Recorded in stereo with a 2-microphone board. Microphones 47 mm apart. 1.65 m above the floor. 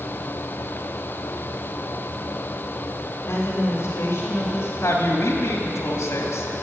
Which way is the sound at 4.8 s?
80° left.